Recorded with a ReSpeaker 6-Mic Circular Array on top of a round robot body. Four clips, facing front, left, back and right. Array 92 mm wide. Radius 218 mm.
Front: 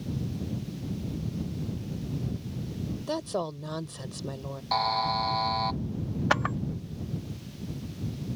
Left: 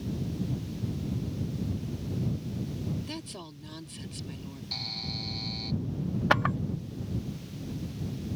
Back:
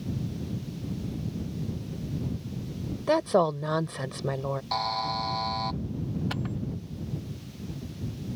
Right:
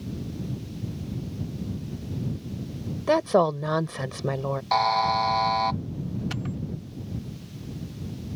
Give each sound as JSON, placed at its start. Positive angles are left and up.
{"t": 3.1, "sound": "a woman speaking", "azimuth_deg": -115}
{"t": 4.7, "sound": "a buzzer", "azimuth_deg": -80}
{"t": 6.3, "sound": "a camera shutter", "azimuth_deg": 50}